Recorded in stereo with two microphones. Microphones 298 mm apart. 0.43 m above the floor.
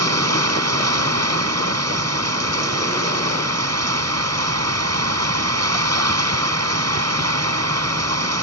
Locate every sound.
0.0 s running water: 55° right (ahead or behind)